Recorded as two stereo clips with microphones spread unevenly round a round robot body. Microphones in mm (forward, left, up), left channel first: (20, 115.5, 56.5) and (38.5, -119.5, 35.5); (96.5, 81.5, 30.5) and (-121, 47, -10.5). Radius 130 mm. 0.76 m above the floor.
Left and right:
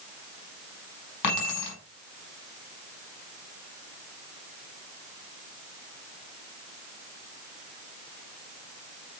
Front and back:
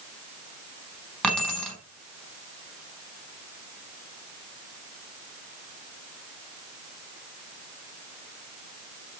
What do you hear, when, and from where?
1.2 s keys jangling: 95° left, 6 m